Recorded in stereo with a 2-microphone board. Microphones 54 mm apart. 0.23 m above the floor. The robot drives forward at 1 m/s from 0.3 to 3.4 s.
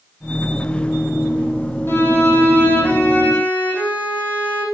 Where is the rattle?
I don't hear a rattle.